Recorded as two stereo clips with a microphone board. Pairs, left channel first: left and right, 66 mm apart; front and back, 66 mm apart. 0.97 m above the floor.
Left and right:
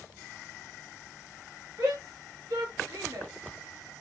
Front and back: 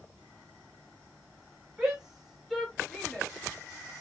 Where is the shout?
105° right, 2 m; by 3.3 s 80° right, 1.9 m.